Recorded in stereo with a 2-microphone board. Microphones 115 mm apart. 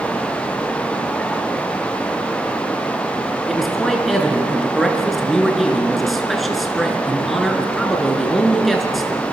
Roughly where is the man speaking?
Centre.